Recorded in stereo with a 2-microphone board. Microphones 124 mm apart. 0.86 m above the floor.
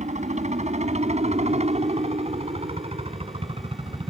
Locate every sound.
0.0 s a helicopter: 70° right (ahead or behind); by 4.1 s 45° right (ahead or behind)